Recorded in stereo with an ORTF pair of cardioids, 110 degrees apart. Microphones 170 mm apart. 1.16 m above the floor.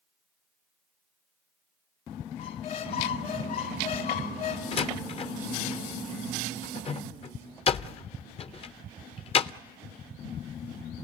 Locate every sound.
2.4 s a squeak: 65° left, 1.9 m
4.7 s a door slam: 35° left, 0.6 m